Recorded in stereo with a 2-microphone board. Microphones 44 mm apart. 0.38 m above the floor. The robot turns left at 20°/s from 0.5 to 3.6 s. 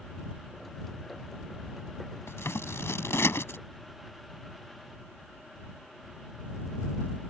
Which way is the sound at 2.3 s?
80° left.